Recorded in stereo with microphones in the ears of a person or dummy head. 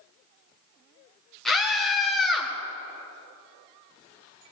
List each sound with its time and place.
1.4 s a scream: 5° left (ahead or behind), 1.3 m